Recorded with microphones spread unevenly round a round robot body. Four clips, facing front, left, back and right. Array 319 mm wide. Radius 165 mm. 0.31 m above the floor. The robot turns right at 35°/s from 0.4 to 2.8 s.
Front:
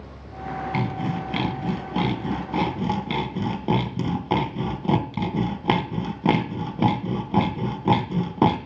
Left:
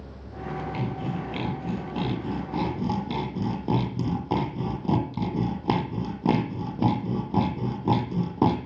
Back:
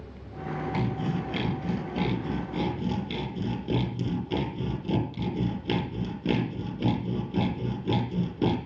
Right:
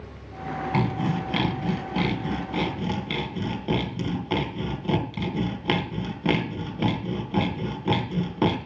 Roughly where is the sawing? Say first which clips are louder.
Right 5 dB, front 3 dB; ahead right.